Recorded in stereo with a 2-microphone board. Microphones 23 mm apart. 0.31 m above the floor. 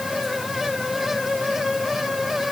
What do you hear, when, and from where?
Only background noise.